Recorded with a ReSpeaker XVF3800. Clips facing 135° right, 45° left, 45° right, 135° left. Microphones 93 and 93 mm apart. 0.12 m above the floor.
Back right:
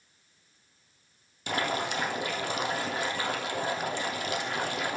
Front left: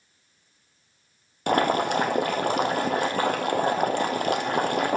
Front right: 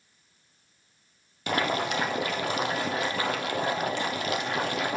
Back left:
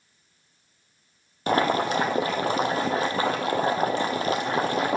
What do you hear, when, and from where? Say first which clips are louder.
1.5 s boiling: front left 9 dB, back left 5 dB; 80° left, 1.5 m